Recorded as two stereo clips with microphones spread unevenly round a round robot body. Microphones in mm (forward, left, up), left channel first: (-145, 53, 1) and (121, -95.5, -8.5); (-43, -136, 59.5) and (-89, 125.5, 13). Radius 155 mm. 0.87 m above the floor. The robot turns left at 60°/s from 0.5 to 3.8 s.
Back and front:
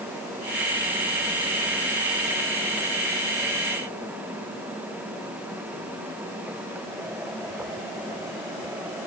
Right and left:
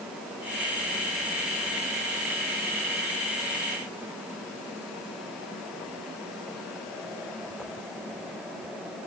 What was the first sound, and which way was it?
Only background noise.